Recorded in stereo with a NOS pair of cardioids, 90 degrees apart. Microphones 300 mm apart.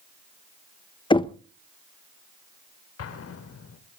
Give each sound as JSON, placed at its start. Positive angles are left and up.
{"t": 1.1, "sound": "knocking", "azimuth_deg": 15, "distance_m": 0.9}
{"t": 3.0, "sound": "an explosion", "azimuth_deg": 55, "distance_m": 2.0}